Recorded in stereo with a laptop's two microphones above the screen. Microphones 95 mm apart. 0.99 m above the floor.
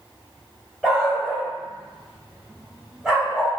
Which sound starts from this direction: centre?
A dog barking, at 0.8 s.